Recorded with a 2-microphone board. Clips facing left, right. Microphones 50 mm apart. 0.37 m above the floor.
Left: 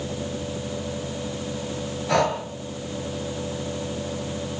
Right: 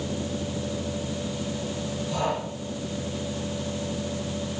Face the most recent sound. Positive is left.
turn(degrees=75)  # may be behind; listen again after turning